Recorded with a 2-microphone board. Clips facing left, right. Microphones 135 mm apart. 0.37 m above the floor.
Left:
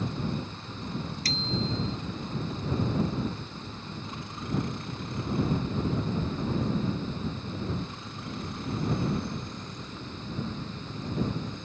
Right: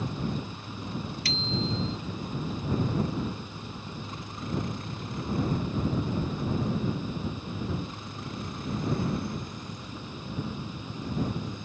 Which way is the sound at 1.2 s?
40° left (ahead or behind).